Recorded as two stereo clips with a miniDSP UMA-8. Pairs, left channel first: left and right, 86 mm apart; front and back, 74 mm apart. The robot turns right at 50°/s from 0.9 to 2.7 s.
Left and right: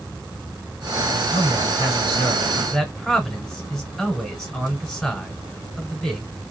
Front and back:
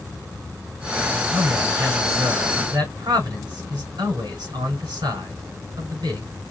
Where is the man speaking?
105° left, 4.5 m; by 6.3 s 175° left, 4.5 m.